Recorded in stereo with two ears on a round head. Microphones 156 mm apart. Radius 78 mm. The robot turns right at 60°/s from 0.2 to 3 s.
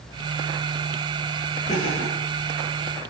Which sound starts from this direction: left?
Laughter, at 1.7 s.